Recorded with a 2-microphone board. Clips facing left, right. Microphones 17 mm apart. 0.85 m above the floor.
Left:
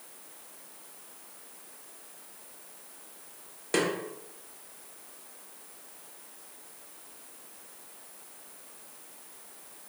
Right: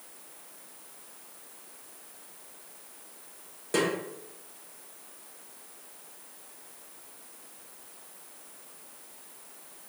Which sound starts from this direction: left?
A snare drum, at 3.7 s.